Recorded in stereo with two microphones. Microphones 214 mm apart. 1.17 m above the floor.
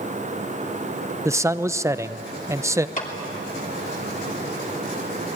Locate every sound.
1.2 s a man speaking: 15° right (ahead or behind), 0.7 m
3.0 s a clap: 35° left (ahead or behind), 3 m